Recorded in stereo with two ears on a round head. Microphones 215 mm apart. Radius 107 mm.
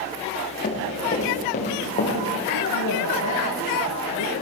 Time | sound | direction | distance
0.6 | running footsteps | 35° left (ahead or behind) | 8.5 m
2.5 | a woman speaking | 75° left (ahead or behind) | 6 m